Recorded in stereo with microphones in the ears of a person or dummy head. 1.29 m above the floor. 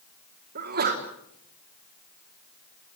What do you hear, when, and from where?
0.6 s a sneeze: 45° right (ahead or behind), 3 m